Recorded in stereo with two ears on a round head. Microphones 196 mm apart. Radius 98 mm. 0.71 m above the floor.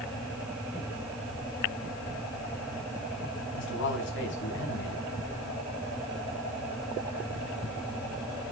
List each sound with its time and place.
3.5 s a man speaking: 55° left (ahead or behind), 5.5 m